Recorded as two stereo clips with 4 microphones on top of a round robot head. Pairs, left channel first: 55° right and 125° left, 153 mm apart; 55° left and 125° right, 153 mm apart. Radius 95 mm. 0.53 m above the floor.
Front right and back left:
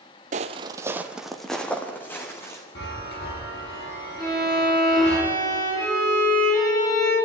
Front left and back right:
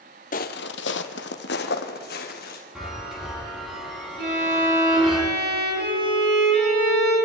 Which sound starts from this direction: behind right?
A violin, at 4.2 s.